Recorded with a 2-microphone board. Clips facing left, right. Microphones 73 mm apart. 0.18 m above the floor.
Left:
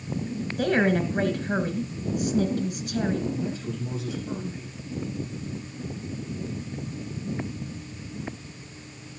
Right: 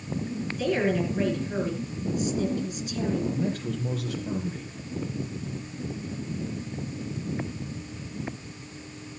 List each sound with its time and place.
0.6 s a woman speaking: 50° left (ahead or behind), 2.5 m
3.3 s a man speaking: 60° right (ahead or behind), 3 m